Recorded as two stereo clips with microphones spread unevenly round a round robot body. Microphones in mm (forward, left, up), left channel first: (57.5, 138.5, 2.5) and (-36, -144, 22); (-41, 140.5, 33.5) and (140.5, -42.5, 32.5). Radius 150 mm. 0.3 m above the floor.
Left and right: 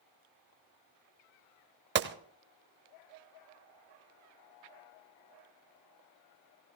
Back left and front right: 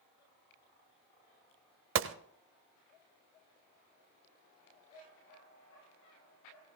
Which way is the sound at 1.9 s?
60° right.